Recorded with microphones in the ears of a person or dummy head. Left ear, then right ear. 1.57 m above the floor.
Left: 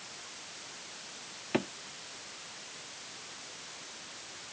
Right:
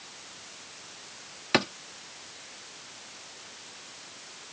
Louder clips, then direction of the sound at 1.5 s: Right 8 dB; 60° right (ahead or behind).